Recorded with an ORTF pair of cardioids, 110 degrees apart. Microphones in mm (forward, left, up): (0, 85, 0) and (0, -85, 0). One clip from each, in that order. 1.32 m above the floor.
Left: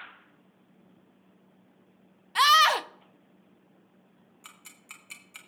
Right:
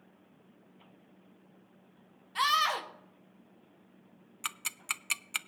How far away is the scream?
About 0.7 m.